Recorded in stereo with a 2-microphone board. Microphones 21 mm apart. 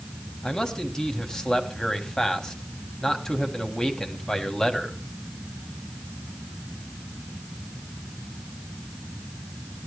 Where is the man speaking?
30° left (ahead or behind), 3 m.